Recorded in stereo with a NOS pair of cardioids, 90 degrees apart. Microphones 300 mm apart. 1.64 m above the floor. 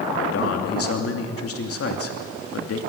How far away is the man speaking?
About 3 m.